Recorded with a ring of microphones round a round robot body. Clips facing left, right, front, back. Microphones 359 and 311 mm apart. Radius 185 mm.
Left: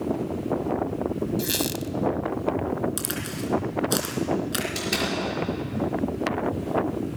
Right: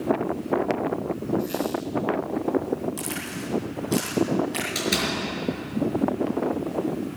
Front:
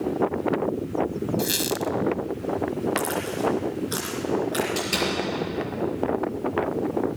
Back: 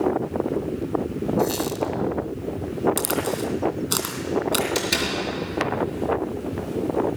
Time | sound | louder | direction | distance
1.4 | a squeak | right 1 dB, back 3 dB | 60° left | 0.6 m
3.0 | a crack | left 1 dB, back 2 dB | 150° left | 3 m
4.8 | a door slam | right 3 dB, back 1 dB | 160° right | 5 m